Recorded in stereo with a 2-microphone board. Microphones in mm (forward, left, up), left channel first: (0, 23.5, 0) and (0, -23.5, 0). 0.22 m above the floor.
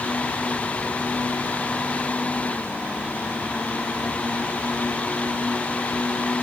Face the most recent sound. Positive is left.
No sound to turn to.